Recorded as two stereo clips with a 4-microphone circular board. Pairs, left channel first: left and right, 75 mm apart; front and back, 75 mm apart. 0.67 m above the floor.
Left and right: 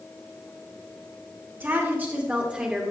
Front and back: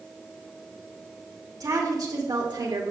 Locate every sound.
1.6 s a woman speaking: 150° right, 2 m; by 2.9 s 175° right, 1.7 m